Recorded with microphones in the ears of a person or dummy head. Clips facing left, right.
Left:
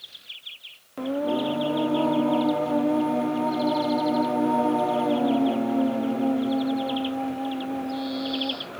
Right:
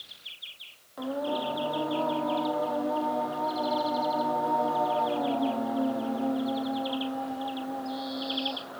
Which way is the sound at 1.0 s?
35° left (ahead or behind).